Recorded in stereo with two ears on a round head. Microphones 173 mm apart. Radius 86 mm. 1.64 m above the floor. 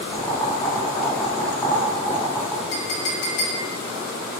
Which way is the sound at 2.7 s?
55° left (ahead or behind).